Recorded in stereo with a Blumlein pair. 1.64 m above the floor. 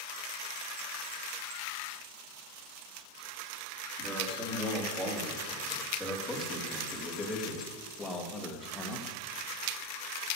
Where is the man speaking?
10° right, 4.5 m; by 9.2 s 20° left, 2.0 m.